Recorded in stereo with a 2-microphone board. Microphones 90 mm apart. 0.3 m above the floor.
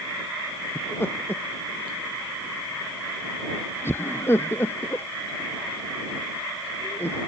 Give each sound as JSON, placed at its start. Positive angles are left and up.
{"t": 0.8, "sound": "laughter", "side_deg": 25}